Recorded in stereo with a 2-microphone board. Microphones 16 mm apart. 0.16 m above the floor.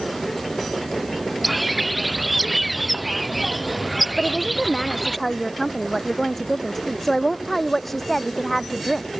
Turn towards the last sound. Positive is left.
turn(degrees=20)  # may be behind; listen again after turning